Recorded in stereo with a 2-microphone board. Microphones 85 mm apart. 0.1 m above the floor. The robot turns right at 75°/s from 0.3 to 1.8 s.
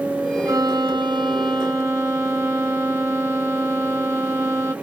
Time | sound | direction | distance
0.5 | a violin | 140° right | 0.7 m